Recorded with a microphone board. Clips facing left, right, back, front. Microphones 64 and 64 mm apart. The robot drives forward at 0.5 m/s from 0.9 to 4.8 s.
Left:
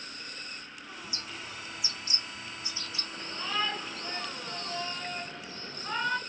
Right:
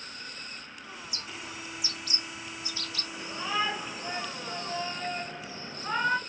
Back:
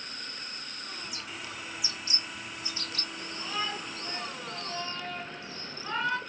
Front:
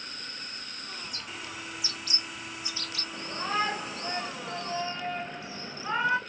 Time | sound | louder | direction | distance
1.0 | a bird | right 1 dB, even | 95° left | 1.2 m
3.1 | a shout | right 3 dB, front 7 dB | 15° right | 1.6 m